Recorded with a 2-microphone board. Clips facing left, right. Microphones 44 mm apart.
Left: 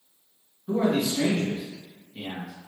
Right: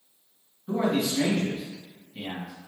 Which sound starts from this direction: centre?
A man speaking, at 0.7 s.